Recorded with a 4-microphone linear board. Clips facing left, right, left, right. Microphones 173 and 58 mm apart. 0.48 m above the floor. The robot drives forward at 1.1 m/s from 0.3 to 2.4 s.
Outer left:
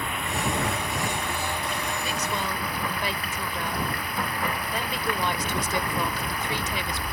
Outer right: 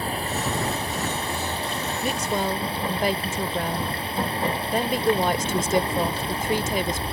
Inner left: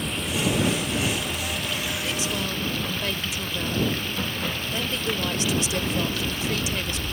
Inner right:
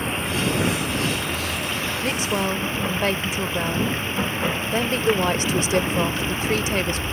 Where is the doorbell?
No doorbell in this recording.